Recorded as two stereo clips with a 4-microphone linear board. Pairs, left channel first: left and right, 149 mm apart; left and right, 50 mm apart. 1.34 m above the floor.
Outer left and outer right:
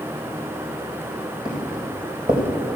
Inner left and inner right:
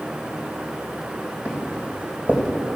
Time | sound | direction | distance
1.4 | footsteps | 35° right (ahead or behind) | 3.5 m